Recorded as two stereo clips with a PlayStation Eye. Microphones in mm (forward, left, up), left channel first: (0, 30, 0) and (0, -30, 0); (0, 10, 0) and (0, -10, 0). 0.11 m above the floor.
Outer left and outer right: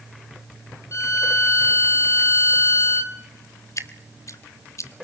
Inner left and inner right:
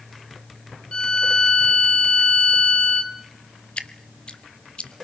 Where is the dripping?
65° left (ahead or behind), 0.8 m.